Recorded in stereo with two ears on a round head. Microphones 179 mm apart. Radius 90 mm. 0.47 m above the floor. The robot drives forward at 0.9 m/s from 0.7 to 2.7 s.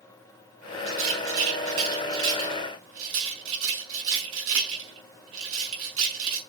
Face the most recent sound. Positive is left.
turn(degrees=-75)  # may be behind; listen again after turning